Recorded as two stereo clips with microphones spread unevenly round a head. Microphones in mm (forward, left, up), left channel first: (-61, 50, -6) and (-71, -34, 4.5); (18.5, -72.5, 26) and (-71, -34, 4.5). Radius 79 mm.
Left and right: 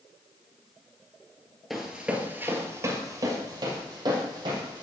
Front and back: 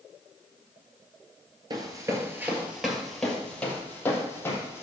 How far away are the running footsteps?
About 1.7 m.